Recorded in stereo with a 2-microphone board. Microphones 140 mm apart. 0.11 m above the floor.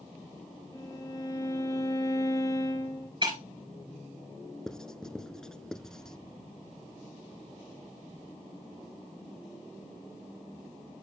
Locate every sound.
0.7 s a violin: 25° left (ahead or behind), 2.5 m
3.2 s breaking glass: 35° right (ahead or behind), 6 m
4.7 s writing: 5° left (ahead or behind), 0.6 m